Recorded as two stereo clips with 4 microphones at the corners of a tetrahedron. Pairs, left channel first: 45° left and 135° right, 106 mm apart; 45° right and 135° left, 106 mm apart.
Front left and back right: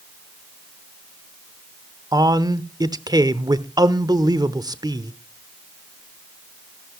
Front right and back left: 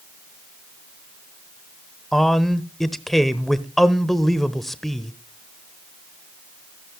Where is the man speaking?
130° right, 0.9 m.